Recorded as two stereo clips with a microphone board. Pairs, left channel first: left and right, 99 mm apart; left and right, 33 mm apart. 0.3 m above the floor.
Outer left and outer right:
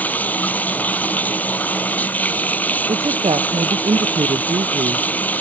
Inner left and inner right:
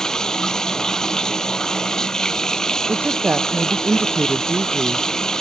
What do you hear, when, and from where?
0.0 s running water: 15° left (ahead or behind)
2.9 s a woman speaking: 70° right (ahead or behind)